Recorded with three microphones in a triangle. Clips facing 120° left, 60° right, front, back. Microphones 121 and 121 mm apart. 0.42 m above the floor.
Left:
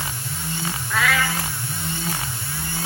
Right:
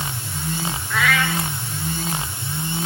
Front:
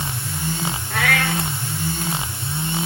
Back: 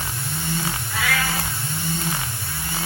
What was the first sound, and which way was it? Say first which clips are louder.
A cat meowing: right 1 dB, front 4 dB; 30° left.